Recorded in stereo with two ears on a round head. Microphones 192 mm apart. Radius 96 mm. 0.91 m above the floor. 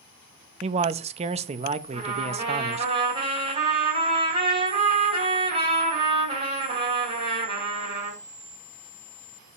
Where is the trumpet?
25° right (ahead or behind), 4 m.